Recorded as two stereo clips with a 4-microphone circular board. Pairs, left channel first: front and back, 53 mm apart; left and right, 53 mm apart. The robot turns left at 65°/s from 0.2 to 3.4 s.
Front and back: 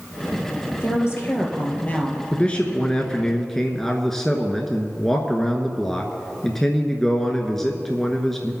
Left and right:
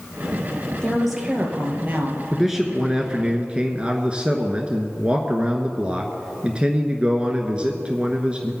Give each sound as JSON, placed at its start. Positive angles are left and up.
{"t": 0.8, "sound": "a woman speaking", "azimuth_deg": 25, "distance_m": 3.0}
{"t": 2.3, "sound": "a man speaking", "azimuth_deg": -5, "distance_m": 1.1}